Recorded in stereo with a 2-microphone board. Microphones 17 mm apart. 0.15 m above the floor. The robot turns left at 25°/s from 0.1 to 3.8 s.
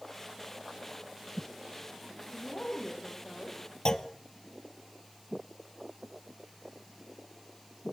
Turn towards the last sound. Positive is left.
turn(degrees=45)  # may be behind; listen again after turning